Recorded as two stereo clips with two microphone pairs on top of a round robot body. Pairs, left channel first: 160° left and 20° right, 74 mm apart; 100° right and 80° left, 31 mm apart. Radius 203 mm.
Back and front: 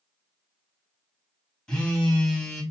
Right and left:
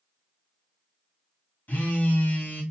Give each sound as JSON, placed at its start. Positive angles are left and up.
{"t": 1.7, "sound": "a phone buzzing", "azimuth_deg": -115, "distance_m": 1.3}